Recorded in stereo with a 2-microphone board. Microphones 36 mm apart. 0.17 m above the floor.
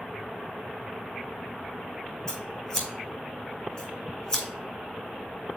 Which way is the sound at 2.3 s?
25° left (ahead or behind).